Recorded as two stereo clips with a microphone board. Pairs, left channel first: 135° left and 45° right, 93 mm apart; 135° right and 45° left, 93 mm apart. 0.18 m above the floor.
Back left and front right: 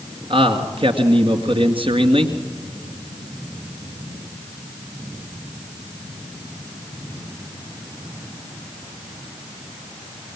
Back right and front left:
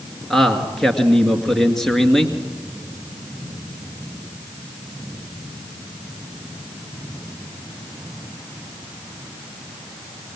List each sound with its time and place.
0.3 s a man speaking: 50° right, 2 m